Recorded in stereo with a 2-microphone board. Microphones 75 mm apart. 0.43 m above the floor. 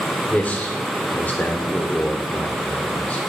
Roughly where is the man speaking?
Left.